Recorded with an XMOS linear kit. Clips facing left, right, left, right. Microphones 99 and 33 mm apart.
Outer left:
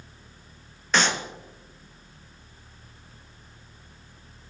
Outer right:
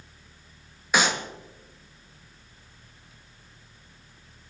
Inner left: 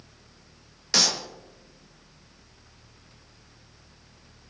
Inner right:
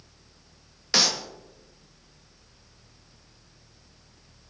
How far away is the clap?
About 1.6 m.